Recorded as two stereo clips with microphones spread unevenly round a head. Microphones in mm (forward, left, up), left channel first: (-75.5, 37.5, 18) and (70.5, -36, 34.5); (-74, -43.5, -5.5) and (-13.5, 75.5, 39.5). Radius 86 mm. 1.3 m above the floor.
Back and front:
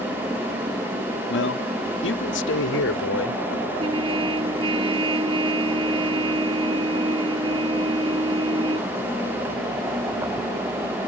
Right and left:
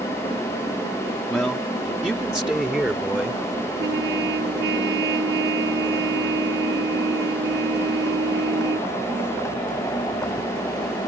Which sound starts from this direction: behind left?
A man speaking, at 1.3 s.